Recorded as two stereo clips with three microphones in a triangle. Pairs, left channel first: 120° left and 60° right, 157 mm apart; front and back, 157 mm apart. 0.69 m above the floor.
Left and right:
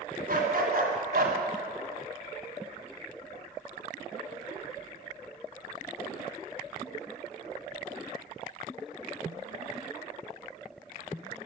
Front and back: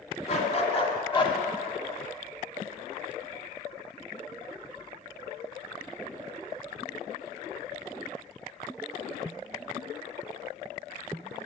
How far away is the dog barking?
About 2.5 m.